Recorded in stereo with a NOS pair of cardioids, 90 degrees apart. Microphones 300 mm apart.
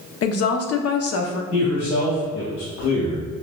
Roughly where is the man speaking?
Ahead left.